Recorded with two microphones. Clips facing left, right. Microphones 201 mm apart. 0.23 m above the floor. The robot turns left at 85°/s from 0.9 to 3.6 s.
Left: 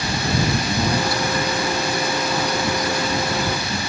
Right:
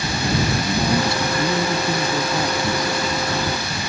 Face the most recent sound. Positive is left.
turn(degrees=110)